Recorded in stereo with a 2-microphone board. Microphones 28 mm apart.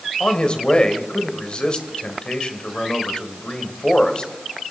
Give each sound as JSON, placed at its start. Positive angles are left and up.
{"t": 0.2, "sound": "a man speaking", "side_deg": 40, "distance_m": 2.5}